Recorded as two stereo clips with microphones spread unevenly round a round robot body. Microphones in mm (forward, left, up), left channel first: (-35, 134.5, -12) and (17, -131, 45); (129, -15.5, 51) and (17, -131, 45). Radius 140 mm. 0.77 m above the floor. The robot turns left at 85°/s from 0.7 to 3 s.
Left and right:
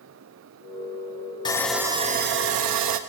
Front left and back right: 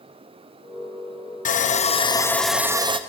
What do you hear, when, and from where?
1.4 s sawing: 40° left, 0.8 m; by 3.0 s 90° right, 0.8 m